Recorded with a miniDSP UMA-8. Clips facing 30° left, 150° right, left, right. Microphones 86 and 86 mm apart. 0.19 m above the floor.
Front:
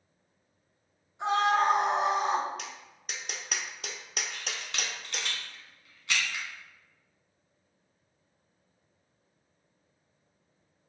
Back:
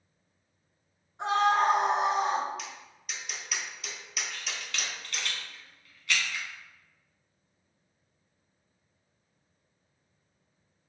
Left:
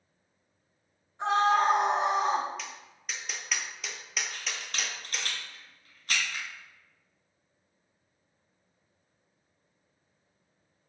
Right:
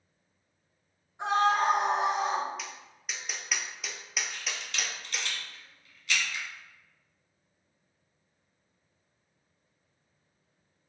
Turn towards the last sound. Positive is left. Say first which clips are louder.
# even, even
turn(degrees=85)